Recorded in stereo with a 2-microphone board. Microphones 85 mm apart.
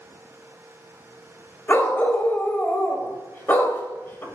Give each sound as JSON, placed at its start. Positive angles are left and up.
{"t": 1.7, "sound": "a dog barking", "side_deg": 25, "distance_m": 0.9}